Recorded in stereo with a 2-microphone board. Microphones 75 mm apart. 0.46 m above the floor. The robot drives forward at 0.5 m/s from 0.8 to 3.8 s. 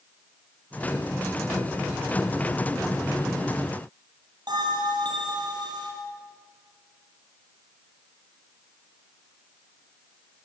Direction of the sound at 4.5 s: 75° right (ahead or behind).